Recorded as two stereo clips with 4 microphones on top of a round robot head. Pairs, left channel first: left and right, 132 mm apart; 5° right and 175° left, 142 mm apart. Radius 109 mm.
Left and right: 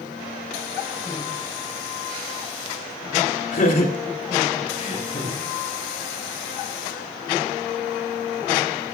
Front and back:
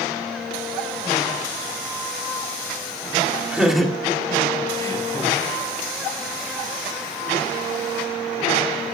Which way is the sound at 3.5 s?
90° left.